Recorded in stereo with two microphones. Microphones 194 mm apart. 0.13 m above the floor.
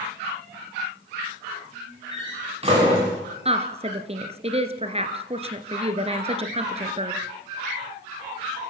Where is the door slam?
30° right (ahead or behind), 9 m.